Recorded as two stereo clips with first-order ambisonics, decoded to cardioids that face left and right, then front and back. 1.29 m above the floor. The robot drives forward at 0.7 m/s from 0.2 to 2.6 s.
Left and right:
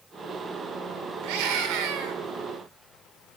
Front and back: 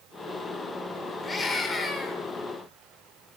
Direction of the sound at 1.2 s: 80° right.